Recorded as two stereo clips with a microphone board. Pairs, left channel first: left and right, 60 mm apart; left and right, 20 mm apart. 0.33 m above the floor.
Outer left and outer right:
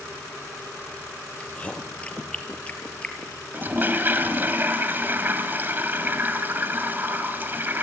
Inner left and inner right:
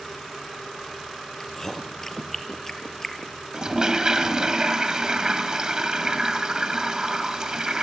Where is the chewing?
20° left (ahead or behind), 2.5 m.